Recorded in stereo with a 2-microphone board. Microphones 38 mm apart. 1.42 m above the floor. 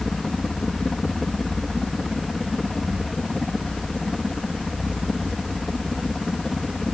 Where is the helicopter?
5° left (ahead or behind).